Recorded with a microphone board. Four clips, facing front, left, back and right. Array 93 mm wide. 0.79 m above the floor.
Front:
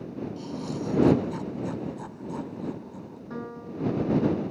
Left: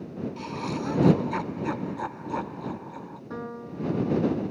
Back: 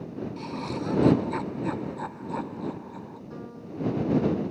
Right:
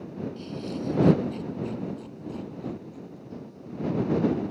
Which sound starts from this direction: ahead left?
A piano, at 3.3 s.